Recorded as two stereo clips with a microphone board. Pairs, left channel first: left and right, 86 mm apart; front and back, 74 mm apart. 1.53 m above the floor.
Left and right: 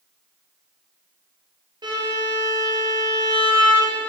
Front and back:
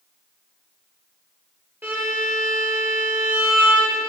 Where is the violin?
120° right, 1.0 m.